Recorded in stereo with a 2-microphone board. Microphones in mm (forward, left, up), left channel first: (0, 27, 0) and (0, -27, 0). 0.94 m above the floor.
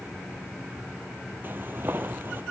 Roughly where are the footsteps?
Right.